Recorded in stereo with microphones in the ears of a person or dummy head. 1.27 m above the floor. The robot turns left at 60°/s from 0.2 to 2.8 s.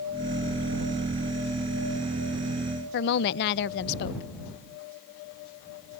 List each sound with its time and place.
2.9 s a woman speaking: 60° left (ahead or behind)